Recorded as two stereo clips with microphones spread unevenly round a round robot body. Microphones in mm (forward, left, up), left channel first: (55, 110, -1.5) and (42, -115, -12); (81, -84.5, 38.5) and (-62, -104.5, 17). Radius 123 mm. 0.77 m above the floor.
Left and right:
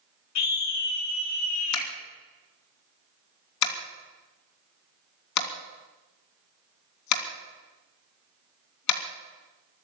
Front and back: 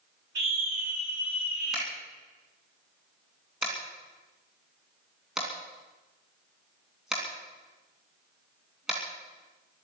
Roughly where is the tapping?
Left.